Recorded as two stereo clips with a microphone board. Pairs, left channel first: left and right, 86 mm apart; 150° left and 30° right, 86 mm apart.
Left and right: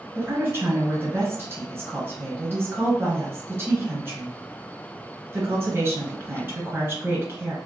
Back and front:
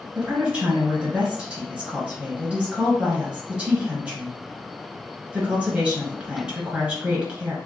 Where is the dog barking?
I don't hear a dog barking.